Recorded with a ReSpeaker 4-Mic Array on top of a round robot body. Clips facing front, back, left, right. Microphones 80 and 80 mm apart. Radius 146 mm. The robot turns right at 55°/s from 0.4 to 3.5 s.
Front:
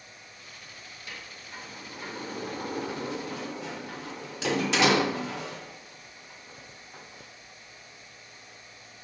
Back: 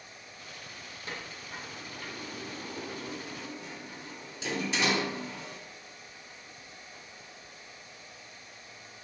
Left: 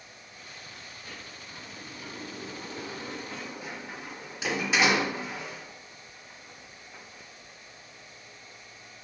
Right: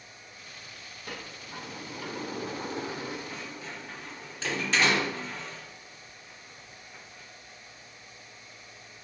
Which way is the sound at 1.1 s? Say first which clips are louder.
Back 3 dB, right 6 dB; 125° right.